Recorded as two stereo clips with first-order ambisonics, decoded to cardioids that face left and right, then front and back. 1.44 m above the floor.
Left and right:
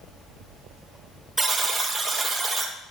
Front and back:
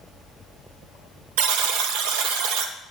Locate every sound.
1.4 s a buzzer: 175° right, 1.2 m